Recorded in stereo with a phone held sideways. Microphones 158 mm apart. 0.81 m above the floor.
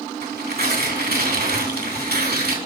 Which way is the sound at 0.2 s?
85° right.